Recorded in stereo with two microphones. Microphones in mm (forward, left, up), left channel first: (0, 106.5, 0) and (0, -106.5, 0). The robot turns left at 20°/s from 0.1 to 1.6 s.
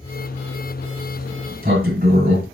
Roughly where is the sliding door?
Right.